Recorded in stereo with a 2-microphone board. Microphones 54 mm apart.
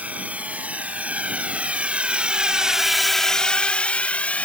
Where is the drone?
30° right (ahead or behind); by 4.5 s 30° left (ahead or behind).